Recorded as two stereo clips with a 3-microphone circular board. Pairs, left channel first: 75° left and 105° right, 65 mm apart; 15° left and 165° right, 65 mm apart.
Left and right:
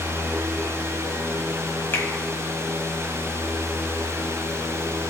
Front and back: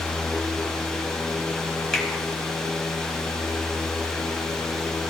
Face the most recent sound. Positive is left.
turn(degrees=95)